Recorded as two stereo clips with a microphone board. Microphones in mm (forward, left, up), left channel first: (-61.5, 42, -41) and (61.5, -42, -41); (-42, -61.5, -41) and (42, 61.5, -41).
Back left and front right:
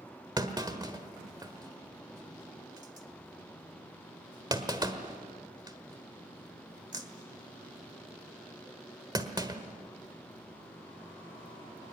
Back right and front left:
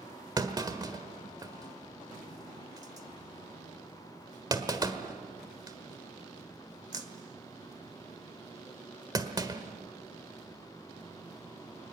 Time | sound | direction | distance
0.4 | a clunk | 10° left | 1.4 m